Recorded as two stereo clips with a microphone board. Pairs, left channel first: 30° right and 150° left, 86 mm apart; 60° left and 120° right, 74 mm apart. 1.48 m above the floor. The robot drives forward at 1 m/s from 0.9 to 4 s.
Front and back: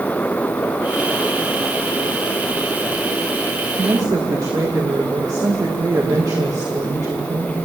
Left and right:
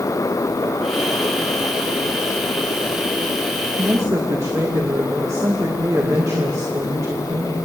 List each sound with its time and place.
3.8 s a woman speaking: 160° right, 2.0 m; by 7.5 s 165° right, 2 m